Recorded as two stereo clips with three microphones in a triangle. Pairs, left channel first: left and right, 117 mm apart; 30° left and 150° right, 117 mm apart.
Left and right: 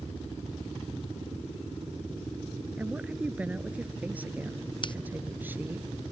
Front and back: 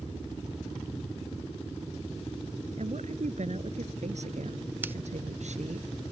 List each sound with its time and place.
2.8 s a woman speaking: 170° right; by 5.8 s 165° right
4.8 s scissors: 135° left